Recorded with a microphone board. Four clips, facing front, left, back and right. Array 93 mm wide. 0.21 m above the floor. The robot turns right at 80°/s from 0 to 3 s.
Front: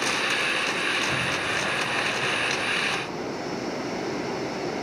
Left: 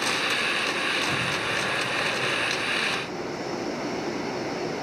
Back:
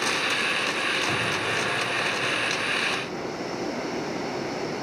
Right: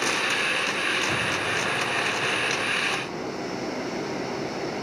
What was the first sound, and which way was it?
An explosion, 170° right.